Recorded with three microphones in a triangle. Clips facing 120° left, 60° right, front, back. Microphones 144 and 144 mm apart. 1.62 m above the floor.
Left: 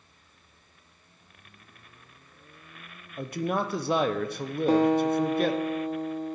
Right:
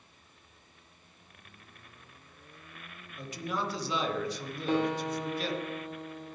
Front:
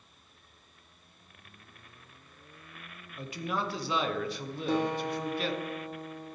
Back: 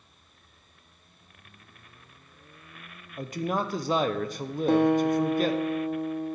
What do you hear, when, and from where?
3.2 s a man speaking: 140° left, 0.7 m
4.7 s a guitar: 165° left, 0.8 m